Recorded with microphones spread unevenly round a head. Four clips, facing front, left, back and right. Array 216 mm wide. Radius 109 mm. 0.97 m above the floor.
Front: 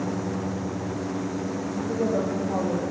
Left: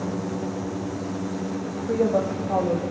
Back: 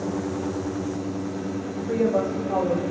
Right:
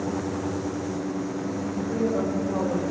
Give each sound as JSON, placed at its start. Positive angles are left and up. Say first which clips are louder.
{"t": 1.6, "sound": "a woman speaking", "louder": "left 4 dB, back 4 dB", "azimuth_deg": 105, "distance_m": 4.0}